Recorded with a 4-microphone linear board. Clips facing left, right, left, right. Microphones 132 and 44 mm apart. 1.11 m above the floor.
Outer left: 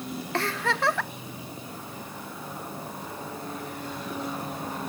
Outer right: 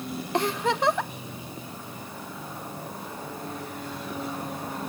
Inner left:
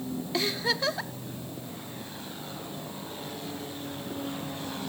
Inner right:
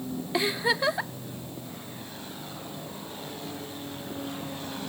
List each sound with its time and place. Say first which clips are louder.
0.3 s a giggle: outer right 3 dB, inner right 3 dB; 15° right (ahead or behind), 0.6 m